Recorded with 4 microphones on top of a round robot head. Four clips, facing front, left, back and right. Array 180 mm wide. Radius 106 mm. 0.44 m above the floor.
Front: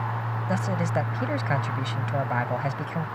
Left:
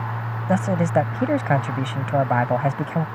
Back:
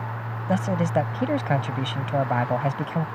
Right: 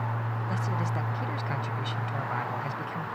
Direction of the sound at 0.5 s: 110° left.